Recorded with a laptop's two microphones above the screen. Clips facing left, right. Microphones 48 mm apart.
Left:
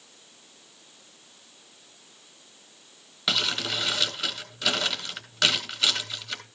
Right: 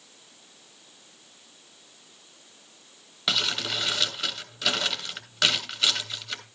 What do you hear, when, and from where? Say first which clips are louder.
3.3 s crumpling: even; 5° right (ahead or behind), 3 m